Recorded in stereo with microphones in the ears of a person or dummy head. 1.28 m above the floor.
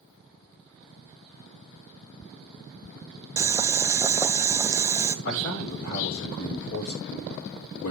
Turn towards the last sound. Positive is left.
turn(degrees=75)  # may be behind; listen again after turning